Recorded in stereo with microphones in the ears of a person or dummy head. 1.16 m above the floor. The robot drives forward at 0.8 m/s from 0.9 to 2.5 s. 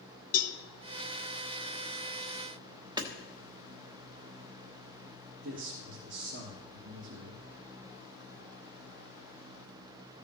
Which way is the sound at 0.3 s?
40° left (ahead or behind).